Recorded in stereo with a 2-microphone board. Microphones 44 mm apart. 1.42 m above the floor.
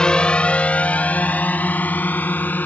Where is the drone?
20° left (ahead or behind); by 2.7 s 40° left (ahead or behind).